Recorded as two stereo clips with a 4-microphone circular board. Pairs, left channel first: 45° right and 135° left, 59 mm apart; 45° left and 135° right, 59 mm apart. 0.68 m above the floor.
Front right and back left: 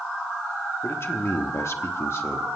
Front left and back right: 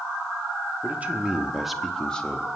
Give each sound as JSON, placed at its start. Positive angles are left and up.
{"t": 0.8, "sound": "a man speaking", "azimuth_deg": -80, "distance_m": 1.3}